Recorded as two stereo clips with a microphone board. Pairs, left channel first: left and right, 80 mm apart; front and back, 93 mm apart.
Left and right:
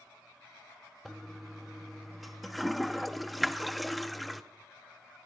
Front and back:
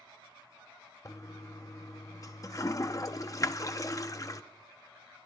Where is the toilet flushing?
Straight ahead, 0.5 m.